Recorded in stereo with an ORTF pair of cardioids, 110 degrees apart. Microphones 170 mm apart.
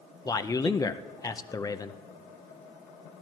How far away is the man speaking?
About 0.7 m.